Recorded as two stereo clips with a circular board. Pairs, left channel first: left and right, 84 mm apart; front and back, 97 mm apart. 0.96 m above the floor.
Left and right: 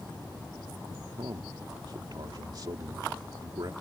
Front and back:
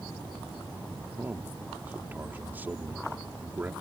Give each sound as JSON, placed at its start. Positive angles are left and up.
{"t": 1.2, "sound": "a man speaking", "azimuth_deg": -110}